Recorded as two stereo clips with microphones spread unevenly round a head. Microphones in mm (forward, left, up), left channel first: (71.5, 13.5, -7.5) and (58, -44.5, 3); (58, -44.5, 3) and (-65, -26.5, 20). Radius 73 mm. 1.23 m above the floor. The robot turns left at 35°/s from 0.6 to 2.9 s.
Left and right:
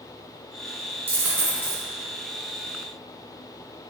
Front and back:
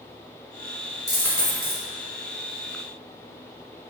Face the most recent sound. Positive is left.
turn(degrees=-170)